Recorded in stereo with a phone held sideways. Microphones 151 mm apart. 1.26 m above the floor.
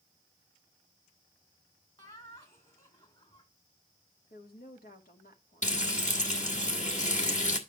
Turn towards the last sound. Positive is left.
turn(degrees=55)  # may be behind; listen again after turning